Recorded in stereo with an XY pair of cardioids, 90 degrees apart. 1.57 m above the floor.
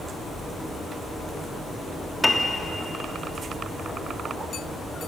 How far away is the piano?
About 3 m.